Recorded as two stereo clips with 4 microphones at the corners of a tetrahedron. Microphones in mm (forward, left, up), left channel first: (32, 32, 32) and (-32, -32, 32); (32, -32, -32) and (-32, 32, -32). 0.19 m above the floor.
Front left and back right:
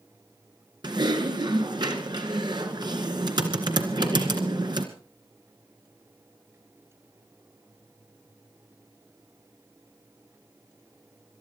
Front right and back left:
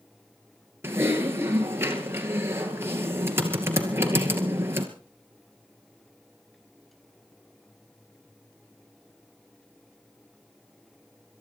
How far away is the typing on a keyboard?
About 2 m.